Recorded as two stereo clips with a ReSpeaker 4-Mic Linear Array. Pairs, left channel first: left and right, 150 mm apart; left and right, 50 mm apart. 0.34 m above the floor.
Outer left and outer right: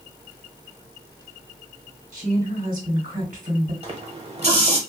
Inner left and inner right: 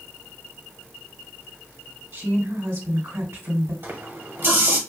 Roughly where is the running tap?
Right.